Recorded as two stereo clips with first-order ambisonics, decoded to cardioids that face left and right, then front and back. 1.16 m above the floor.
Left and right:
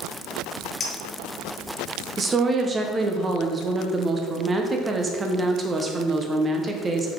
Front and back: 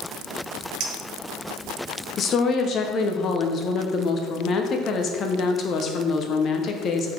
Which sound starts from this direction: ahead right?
A woman speaking, at 2.2 s.